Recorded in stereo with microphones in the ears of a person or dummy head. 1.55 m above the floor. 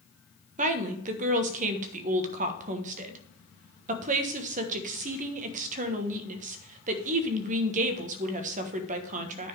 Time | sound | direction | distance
0.6 | a woman speaking | 40° right (ahead or behind) | 1.3 m